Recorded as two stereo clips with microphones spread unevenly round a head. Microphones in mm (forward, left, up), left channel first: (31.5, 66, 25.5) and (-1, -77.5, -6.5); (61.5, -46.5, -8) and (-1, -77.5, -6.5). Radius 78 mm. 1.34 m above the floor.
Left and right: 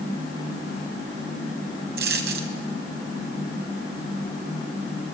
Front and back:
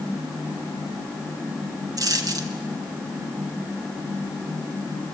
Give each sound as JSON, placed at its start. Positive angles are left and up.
{"t": 2.0, "sound": "a dropped coin", "azimuth_deg": -135, "distance_m": 2.5}